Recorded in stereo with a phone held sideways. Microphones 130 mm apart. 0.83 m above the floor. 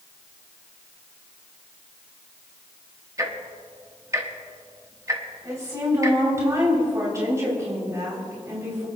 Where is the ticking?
25° right (ahead or behind), 1.3 m.